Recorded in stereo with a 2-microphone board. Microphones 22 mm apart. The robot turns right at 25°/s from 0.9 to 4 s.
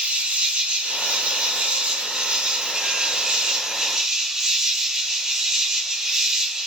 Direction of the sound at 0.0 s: 105° right.